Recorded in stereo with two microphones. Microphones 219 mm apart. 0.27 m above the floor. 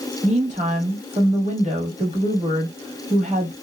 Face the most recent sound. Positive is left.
turn(degrees=-30)  # may be behind; listen again after turning